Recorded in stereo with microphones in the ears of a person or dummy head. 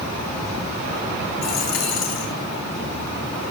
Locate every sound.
1.4 s a dropped coin: 65° left (ahead or behind), 4 m